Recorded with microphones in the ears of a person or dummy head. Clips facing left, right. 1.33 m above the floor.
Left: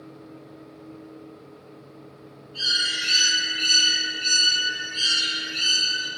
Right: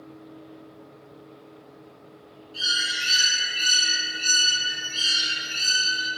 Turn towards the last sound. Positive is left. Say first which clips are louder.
# even
turn(degrees=-60)  # may be behind; listen again after turning